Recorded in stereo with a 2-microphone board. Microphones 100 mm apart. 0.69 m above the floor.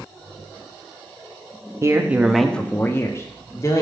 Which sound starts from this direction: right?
A man speaking, at 1.8 s.